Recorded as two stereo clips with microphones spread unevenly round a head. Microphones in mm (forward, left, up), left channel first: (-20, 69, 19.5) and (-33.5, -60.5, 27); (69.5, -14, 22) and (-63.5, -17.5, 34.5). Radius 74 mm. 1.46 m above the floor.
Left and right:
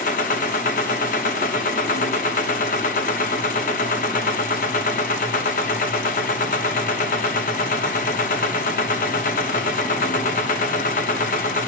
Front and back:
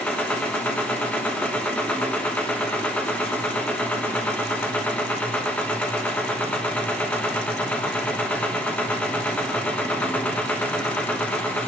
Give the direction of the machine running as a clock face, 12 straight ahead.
9 o'clock.